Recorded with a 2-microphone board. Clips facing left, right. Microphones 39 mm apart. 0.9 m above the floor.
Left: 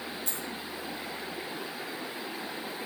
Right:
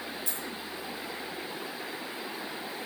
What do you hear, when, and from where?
0.3 s a dropped coin: 40° left (ahead or behind), 6 m